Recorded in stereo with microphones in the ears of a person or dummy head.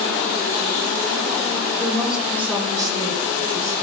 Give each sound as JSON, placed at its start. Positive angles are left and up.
{"t": 1.8, "sound": "a woman speaking", "side_deg": 0, "distance_m": 2.5}